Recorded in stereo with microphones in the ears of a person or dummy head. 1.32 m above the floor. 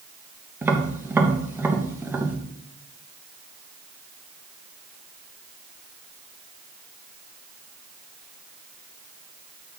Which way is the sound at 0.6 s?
15° right (ahead or behind).